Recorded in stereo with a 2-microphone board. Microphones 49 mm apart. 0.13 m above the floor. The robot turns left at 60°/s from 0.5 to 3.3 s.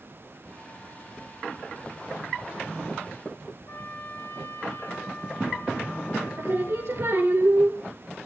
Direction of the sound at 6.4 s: 60° right (ahead or behind).